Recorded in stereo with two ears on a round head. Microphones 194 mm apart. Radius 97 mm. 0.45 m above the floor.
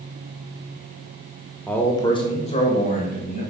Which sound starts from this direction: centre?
A man speaking, at 1.7 s.